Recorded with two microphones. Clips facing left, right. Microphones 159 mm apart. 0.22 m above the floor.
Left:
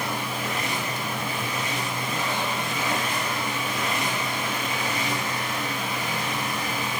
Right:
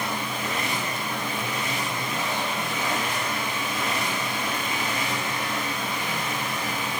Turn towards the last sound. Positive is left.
No sound to turn to.